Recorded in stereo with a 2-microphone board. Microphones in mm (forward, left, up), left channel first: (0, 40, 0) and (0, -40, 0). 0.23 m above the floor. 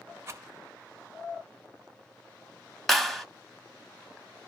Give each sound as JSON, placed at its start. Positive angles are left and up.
{"t": 0.3, "sound": "a rattle", "side_deg": -35, "distance_m": 0.7}
{"t": 2.9, "sound": "a clap", "side_deg": 0, "distance_m": 0.8}